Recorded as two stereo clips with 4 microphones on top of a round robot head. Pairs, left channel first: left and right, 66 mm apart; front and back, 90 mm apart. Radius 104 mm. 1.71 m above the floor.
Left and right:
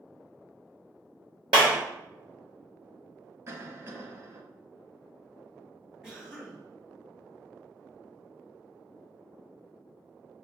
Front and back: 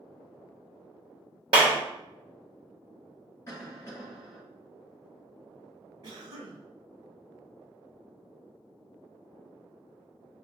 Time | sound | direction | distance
1.5 | a clap | 130° right | 0.7 m
3.5 | a cough | 55° right | 1.9 m
6.0 | a cough | 170° right | 1.5 m